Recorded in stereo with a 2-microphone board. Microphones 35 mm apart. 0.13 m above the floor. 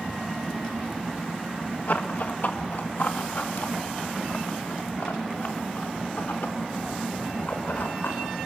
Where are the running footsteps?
55° left (ahead or behind), 1.9 m; by 8.2 s 85° left, 5 m.